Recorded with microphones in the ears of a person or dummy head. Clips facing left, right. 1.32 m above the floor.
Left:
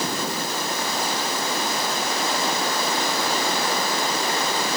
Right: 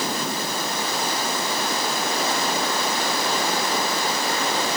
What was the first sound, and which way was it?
Only background noise.